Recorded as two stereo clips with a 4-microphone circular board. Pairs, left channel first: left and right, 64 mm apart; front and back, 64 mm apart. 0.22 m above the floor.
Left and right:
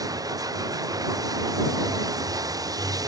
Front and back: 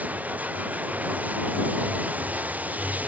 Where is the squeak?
No squeak in this recording.